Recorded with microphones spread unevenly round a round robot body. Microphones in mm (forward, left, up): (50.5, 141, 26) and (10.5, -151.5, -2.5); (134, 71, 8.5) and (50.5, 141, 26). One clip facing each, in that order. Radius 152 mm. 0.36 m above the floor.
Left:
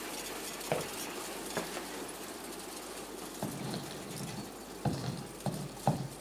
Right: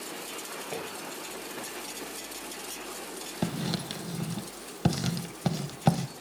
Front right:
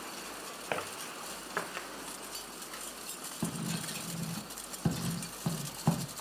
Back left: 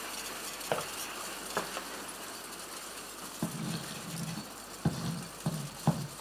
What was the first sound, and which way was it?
Footsteps, 70° left.